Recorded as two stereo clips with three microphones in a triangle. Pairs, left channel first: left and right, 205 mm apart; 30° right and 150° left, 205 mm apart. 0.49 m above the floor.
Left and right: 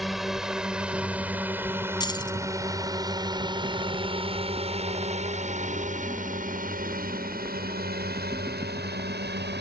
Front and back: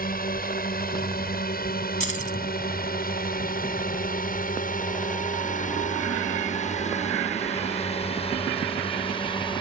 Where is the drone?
Straight ahead; by 9.6 s 90° right.